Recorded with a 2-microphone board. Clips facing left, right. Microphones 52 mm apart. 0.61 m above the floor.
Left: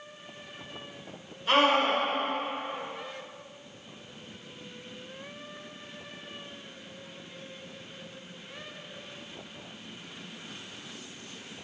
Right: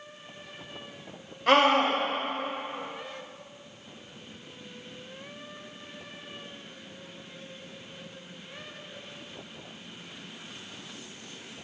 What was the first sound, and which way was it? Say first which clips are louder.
A scream: right 2 dB; 75° right (ahead or behind).